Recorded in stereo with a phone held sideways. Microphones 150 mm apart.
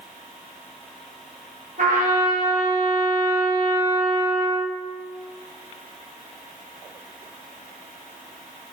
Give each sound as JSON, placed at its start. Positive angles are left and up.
{"t": 1.8, "sound": "a trumpet", "side_deg": -65, "distance_m": 1.0}